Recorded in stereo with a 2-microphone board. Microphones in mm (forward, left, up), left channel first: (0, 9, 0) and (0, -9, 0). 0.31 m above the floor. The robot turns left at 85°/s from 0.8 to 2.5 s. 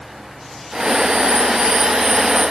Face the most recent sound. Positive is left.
No sound to turn to.